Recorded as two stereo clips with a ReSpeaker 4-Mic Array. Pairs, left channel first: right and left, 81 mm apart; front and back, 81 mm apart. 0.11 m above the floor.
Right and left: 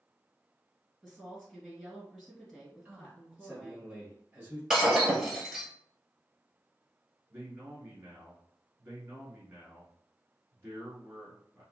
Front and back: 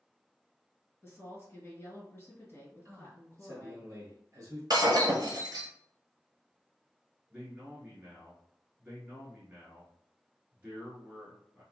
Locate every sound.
1.0 s a woman speaking: straight ahead, 1.7 m
2.9 s a man speaking: 150° left, 1.7 m
4.7 s breaking glass: 170° left, 1.2 m
7.3 s a man speaking: 120° left, 1.2 m